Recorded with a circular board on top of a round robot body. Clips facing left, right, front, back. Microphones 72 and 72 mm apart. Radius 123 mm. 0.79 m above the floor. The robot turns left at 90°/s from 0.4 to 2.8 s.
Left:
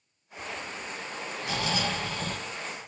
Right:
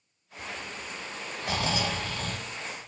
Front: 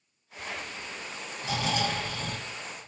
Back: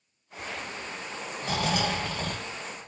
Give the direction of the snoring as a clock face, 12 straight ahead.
4 o'clock.